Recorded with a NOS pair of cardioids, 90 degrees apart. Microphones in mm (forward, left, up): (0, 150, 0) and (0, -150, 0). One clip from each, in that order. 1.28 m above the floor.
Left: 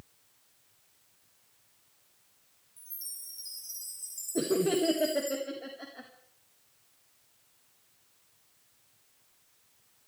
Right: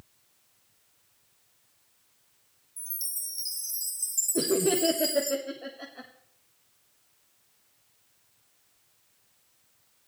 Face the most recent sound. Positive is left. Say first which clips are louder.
# right 1 dB
turn(degrees=-10)